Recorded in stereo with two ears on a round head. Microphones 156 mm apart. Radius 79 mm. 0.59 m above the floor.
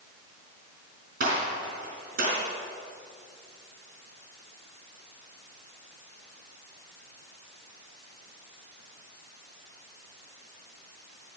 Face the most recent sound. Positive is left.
turn(degrees=-50)  # may be behind; listen again after turning